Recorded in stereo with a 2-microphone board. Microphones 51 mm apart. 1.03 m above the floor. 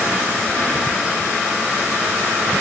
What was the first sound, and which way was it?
Only background noise.